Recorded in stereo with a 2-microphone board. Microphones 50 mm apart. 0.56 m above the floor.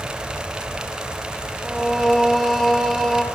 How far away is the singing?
About 1.2 m.